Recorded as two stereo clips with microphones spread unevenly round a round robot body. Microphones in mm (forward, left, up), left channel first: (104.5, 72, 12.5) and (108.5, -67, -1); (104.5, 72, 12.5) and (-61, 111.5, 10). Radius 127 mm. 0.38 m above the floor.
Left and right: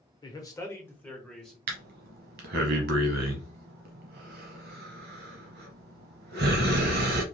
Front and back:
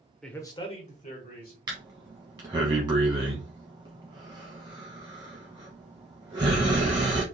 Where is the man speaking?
70° left, 0.9 m; by 1.6 s 5° left, 1.7 m.